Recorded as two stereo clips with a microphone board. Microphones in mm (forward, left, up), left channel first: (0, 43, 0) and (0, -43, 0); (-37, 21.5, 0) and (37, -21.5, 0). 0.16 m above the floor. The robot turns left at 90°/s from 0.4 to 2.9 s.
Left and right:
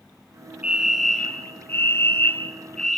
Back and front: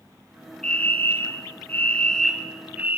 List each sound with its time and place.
0.6 s a fire alarm: 145° right, 2 m; by 3.0 s 10° left, 2 m